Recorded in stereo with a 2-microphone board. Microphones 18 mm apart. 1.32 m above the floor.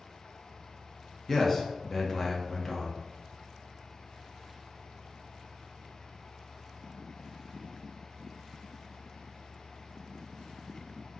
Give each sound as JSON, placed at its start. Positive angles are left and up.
{"t": 1.3, "sound": "a man speaking", "side_deg": 10, "distance_m": 0.5}